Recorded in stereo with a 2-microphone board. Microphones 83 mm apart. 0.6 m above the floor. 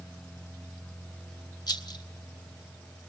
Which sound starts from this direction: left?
A rattle, at 1.7 s.